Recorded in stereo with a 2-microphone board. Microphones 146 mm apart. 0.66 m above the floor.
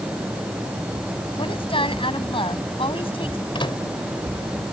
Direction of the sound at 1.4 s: 35° left (ahead or behind).